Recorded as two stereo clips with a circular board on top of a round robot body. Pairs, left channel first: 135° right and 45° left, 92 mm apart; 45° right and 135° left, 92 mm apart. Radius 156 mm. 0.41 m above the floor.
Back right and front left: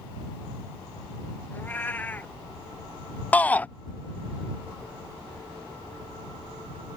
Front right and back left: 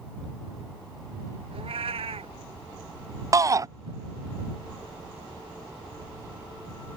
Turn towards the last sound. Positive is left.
turn(degrees=160)